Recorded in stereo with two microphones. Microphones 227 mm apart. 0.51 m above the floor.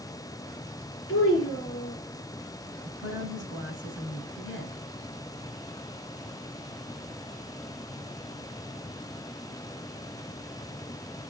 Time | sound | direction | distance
1.1 | a child speaking | 80° left | 5 m
2.9 | a woman speaking | 60° left (ahead or behind) | 4 m